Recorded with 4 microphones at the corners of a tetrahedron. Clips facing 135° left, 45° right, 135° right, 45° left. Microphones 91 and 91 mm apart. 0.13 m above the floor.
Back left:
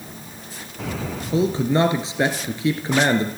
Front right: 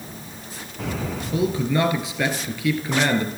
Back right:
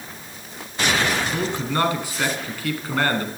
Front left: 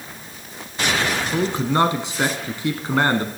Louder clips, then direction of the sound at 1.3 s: Back left 3 dB, front left 4 dB; 95° left.